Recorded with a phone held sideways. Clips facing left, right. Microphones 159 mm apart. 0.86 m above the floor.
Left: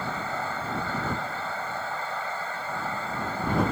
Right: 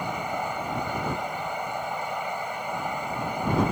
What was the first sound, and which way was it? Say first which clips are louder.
A fan: right 2 dB; 15° right (ahead or behind).